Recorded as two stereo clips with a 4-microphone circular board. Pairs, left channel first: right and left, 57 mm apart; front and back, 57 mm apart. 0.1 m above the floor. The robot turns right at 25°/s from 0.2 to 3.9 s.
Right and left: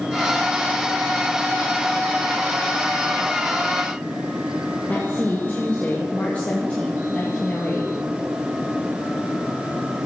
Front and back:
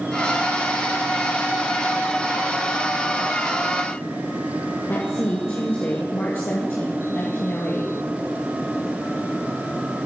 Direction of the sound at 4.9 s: 30° right.